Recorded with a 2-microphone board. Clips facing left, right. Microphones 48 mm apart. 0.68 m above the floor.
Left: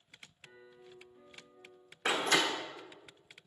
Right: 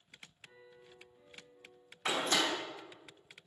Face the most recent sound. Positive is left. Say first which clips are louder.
# left 3 dB
turn(degrees=60)  # may be behind; listen again after turning